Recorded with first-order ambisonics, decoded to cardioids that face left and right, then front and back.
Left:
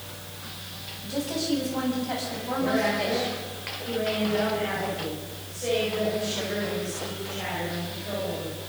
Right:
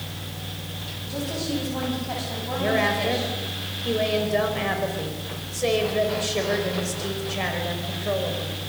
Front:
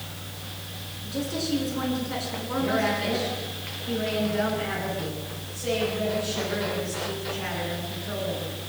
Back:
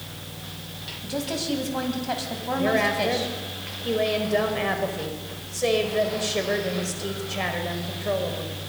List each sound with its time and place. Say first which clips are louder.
1.0 s a woman speaking: left 1 dB, back 2 dB; straight behind, 7.5 m
2.6 s a woman speaking: right 3 dB, back 3 dB; 145° right, 5 m